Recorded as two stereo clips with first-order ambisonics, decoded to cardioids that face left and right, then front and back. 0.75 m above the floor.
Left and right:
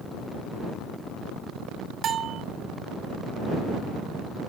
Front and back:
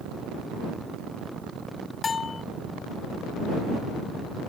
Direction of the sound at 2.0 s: 55° right.